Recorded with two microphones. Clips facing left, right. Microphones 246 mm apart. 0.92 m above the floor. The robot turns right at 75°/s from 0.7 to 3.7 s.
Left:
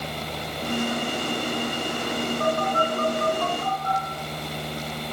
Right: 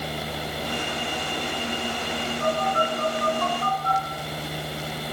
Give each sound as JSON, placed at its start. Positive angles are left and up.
{"t": 2.4, "sound": "a phone buzzing", "side_deg": 70, "distance_m": 7.5}